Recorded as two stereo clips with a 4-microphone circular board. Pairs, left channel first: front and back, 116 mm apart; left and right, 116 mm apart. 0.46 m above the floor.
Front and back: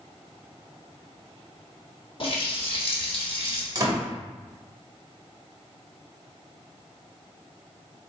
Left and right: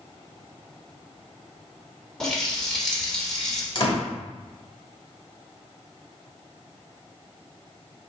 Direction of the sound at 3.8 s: 130° left.